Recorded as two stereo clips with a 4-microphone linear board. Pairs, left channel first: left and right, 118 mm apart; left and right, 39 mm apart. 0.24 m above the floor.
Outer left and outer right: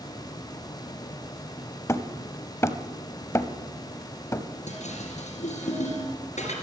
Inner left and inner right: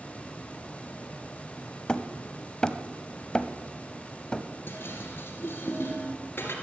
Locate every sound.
1.9 s hammering: 25° left (ahead or behind), 0.7 m
4.7 s dishes clattering: 75° left (ahead or behind), 2.5 m